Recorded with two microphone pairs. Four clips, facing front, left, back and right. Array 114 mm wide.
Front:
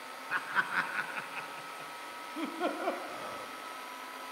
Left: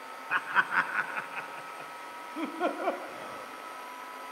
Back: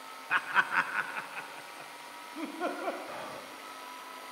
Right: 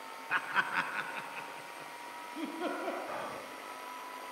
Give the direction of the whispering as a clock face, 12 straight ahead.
3 o'clock.